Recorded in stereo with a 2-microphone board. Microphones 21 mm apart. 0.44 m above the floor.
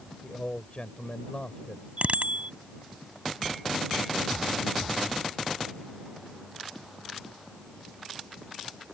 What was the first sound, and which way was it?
A man speaking, 55° left (ahead or behind).